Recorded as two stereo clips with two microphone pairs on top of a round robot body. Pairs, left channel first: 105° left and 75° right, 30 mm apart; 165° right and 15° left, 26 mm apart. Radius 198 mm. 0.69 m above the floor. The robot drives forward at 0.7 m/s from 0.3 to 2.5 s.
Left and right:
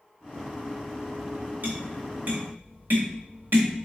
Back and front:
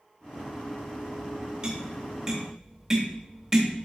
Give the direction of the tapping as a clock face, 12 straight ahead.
2 o'clock.